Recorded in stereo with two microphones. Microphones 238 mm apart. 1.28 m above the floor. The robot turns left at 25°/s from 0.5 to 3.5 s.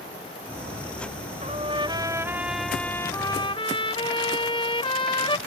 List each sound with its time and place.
1.4 s a trumpet: 150° right; by 5.4 s 160° left